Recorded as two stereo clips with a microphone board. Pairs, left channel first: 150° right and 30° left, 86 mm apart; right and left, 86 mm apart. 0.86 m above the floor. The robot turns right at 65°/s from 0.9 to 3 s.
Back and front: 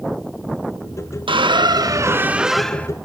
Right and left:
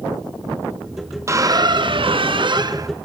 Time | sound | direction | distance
1.3 | a squeak | 35° left | 0.8 m